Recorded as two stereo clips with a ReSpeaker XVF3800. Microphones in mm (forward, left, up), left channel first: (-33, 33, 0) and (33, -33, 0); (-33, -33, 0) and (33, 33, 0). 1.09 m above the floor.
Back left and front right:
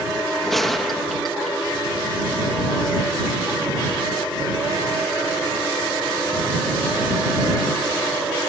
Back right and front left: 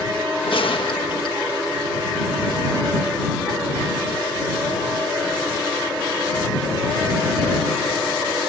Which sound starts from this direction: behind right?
A gunshot, at 0.5 s.